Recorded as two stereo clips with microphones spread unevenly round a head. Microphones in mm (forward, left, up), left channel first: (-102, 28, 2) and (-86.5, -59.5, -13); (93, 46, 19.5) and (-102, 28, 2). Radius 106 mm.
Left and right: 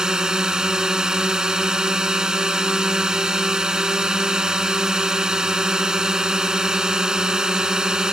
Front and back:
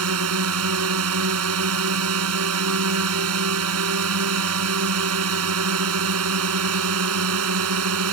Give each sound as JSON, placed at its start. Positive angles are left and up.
{"t": 0.0, "sound": "a drone", "azimuth_deg": -165}